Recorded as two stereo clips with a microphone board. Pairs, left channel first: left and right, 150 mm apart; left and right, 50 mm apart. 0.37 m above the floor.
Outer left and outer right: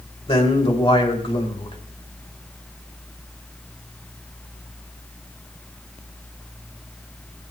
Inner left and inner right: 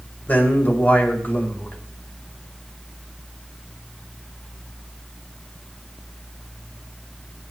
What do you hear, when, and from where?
0.3 s a man speaking: 40° left (ahead or behind), 2 m